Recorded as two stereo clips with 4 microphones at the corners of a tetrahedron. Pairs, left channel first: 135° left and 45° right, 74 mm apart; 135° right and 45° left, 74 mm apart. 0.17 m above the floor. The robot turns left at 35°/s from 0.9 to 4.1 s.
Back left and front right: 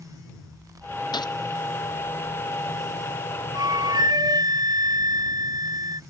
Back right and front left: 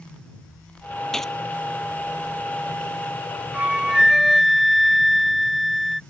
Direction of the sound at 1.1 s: 140° left.